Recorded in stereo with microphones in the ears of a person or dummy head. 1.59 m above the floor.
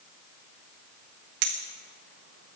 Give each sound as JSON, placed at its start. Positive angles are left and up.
{"t": 1.4, "sound": "a clink", "side_deg": -50, "distance_m": 1.2}